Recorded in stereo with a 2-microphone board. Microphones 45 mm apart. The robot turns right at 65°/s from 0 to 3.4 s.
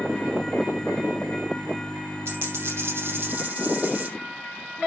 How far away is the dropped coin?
About 6.5 m.